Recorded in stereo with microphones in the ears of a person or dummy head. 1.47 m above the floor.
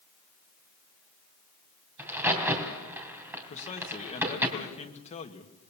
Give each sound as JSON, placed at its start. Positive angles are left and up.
{"t": 2.0, "sound": "a crack", "side_deg": -15, "distance_m": 3.0}
{"t": 3.5, "sound": "a man speaking", "side_deg": 35, "distance_m": 1.7}